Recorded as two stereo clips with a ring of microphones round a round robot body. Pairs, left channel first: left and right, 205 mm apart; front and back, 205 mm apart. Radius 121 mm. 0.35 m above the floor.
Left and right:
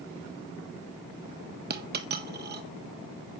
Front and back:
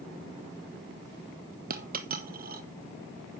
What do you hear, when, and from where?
1.7 s a dropped coin: 130° right, 1.5 m